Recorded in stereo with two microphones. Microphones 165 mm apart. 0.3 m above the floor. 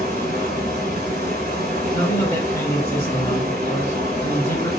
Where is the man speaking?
15° left (ahead or behind), 1.3 m.